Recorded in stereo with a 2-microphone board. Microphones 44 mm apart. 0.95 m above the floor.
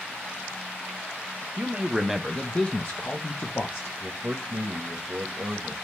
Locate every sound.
1.6 s a man speaking: 35° right (ahead or behind), 0.7 m; by 3.9 s 65° left (ahead or behind), 1.2 m
4.0 s a man speaking: 60° right (ahead or behind), 0.7 m